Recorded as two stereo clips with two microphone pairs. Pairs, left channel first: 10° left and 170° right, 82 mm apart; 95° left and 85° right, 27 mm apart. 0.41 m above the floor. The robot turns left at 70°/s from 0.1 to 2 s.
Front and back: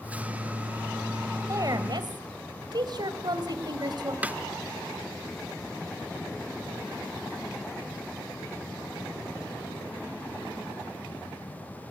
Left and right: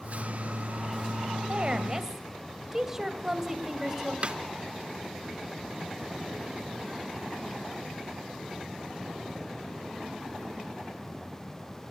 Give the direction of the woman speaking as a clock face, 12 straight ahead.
4 o'clock.